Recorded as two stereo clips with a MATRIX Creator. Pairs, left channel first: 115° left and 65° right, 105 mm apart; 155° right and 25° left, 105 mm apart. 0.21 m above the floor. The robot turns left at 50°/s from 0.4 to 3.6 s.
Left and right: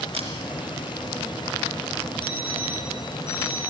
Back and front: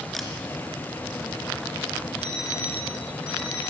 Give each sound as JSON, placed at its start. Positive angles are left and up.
{"t": 0.1, "sound": "a camera shutter", "azimuth_deg": -70, "distance_m": 3.0}
{"t": 2.2, "sound": "an alarm clock", "azimuth_deg": 160, "distance_m": 6.0}